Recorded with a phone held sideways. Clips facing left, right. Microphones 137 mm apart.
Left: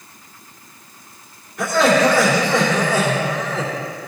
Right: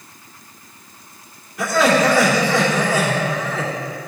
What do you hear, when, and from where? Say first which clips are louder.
1.6 s laughter: left 1 dB; centre (ahead or behind), 2.5 m